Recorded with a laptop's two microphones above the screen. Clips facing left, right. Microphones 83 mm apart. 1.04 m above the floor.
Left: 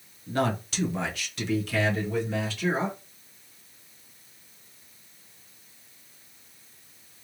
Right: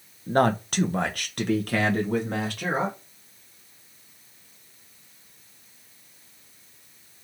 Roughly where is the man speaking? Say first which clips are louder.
Right 6 dB; right.